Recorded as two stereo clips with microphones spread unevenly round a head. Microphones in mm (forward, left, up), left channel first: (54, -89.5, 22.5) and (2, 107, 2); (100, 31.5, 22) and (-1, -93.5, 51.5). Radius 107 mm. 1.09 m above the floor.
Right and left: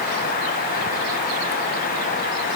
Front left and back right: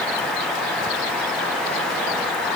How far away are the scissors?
I don't hear scissors.